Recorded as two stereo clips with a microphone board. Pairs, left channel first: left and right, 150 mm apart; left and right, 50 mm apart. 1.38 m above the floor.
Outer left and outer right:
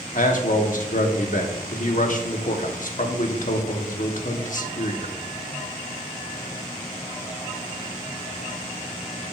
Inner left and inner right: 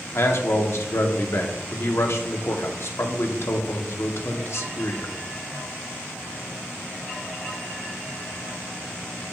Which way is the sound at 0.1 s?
60° left (ahead or behind).